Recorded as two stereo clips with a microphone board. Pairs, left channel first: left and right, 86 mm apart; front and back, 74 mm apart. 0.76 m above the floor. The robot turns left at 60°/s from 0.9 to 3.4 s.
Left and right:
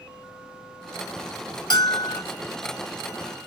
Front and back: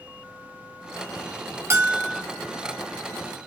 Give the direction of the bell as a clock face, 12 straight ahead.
8 o'clock.